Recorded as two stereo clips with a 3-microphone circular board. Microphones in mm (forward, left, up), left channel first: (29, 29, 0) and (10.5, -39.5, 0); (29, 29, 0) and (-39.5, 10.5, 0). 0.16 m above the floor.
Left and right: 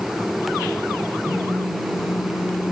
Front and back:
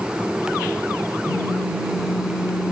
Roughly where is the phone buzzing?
Ahead.